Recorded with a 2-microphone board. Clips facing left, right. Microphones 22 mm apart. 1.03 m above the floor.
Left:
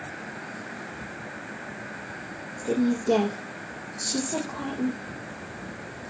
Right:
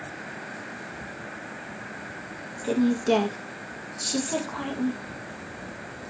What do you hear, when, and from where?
2.6 s a woman speaking: 50° right (ahead or behind), 0.7 m